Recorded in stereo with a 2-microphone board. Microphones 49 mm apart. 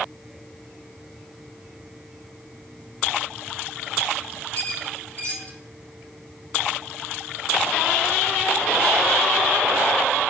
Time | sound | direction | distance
4.5 | a squeak | 40° left (ahead or behind) | 3.5 m